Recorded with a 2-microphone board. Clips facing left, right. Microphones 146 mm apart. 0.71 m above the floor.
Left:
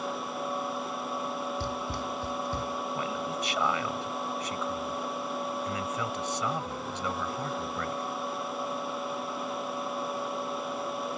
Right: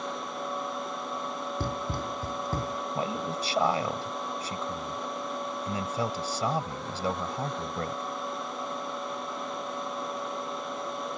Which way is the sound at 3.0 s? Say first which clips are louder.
Right 1 dB; 35° right (ahead or behind).